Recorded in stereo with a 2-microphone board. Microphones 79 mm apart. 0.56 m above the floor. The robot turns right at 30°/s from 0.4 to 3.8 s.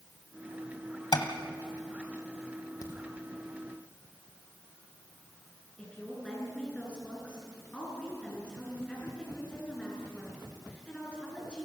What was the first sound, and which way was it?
Tapping, 65° left (ahead or behind).